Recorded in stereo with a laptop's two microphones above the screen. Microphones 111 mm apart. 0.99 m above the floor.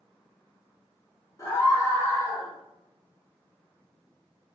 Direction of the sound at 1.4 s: 35° left (ahead or behind).